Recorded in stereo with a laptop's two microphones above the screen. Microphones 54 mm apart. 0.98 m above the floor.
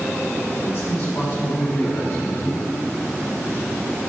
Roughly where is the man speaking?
Left.